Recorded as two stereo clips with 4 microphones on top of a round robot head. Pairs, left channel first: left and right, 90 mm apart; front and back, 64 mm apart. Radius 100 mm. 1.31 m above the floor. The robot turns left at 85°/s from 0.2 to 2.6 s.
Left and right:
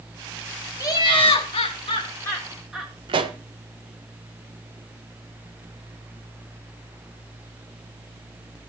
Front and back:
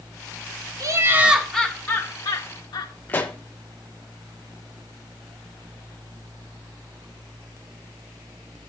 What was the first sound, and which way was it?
Laughter, 145° left.